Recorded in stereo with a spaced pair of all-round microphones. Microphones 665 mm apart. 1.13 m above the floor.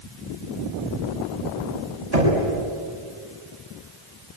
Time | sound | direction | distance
2.1 | knocking | 80° right | 6 m